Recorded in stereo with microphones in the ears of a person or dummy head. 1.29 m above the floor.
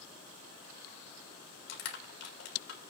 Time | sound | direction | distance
1.7 | crushing | 80° left | 3.5 m